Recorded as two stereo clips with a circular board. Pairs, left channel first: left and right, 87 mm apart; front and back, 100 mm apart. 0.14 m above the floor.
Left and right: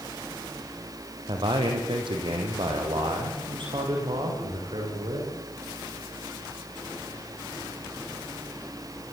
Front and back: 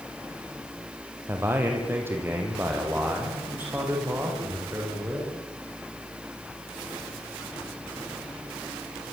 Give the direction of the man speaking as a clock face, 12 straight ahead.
4 o'clock.